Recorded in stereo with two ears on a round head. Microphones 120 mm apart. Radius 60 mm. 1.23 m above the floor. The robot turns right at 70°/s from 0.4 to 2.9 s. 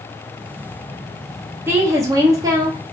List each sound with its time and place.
1.7 s a woman speaking: 15° right (ahead or behind), 0.5 m; by 2.8 s 25° right (ahead or behind), 0.5 m